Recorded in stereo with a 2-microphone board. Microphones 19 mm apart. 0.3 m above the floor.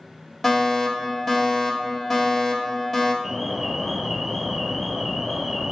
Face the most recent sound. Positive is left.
turn(degrees=-20)  # may be behind; listen again after turning